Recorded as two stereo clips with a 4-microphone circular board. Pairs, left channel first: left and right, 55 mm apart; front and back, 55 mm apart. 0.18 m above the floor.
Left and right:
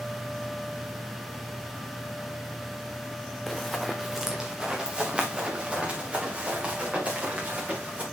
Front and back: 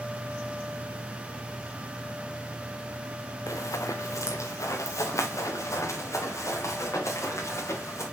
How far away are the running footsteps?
About 1.3 m.